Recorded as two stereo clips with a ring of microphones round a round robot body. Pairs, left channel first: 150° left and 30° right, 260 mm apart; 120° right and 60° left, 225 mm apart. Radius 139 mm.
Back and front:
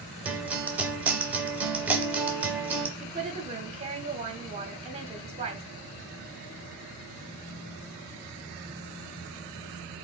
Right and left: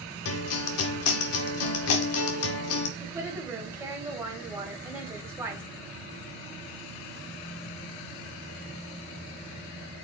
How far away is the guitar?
About 0.6 m.